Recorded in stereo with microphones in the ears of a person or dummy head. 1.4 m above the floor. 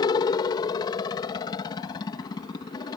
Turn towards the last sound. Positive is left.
turn(degrees=25)  # may be behind; listen again after turning